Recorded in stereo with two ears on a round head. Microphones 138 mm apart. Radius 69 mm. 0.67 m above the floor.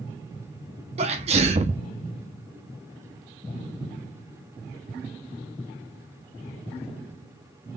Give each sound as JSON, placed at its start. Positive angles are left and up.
{"t": 1.0, "sound": "a sneeze", "side_deg": -40, "distance_m": 0.8}